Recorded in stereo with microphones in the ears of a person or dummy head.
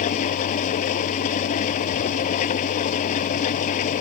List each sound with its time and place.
0.0 s an engine running: 45° left (ahead or behind)